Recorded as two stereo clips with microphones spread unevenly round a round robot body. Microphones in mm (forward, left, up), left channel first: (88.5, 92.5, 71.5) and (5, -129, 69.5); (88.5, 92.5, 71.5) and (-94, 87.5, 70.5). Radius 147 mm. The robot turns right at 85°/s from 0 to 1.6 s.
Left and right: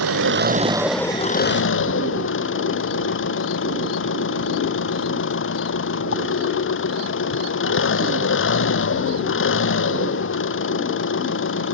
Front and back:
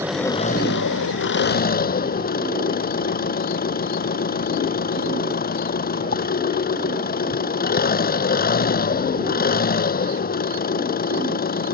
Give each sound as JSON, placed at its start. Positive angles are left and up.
{"t": 0.0, "sound": "an engine running", "azimuth_deg": -100}